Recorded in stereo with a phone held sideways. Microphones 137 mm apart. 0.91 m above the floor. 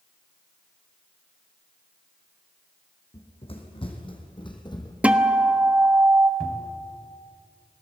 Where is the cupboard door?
5° left (ahead or behind), 3 m.